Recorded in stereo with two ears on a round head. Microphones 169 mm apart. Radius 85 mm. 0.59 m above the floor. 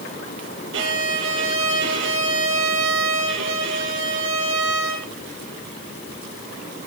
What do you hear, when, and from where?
0.7 s a violin: 70° right (ahead or behind), 5.5 m